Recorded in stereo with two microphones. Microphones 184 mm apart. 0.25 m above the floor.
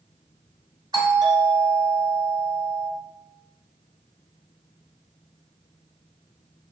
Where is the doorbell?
20° right (ahead or behind), 2.0 m.